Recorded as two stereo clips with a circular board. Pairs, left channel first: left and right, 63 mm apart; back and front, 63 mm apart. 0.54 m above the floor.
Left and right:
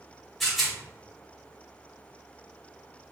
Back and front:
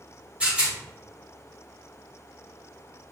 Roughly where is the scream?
I don't hear a scream.